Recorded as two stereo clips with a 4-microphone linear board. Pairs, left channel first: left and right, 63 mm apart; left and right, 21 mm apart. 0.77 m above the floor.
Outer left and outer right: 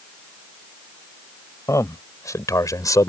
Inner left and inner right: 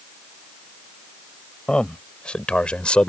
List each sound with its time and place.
1.7 s a man speaking: 55° left (ahead or behind); by 3.1 s 65° left (ahead or behind)